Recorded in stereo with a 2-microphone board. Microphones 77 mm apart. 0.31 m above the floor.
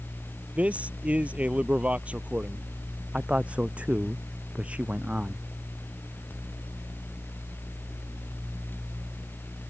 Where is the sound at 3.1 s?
15° right (ahead or behind).